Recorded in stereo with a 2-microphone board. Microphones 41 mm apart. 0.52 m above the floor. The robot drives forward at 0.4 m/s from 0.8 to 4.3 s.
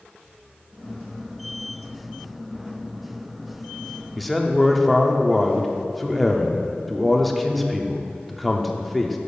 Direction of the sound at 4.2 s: Centre (ahead or behind).